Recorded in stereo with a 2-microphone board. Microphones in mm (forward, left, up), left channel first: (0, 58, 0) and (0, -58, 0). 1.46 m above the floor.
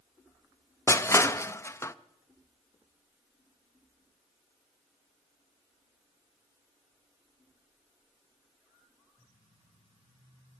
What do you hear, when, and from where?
0.9 s crushing: 25° left (ahead or behind), 0.5 m